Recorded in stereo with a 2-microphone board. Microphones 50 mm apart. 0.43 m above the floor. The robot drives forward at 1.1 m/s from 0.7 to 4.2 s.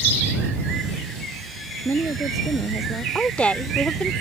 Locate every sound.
1.9 s a woman speaking: 80° left; by 3.0 s 75° left (ahead or behind)
3.1 s a woman speaking: 20° left (ahead or behind); by 4.1 s 25° left (ahead or behind)